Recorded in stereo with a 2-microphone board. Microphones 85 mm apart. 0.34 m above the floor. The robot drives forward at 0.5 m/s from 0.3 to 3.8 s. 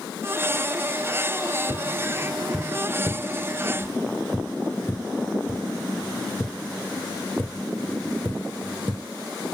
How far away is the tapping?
About 1.6 m.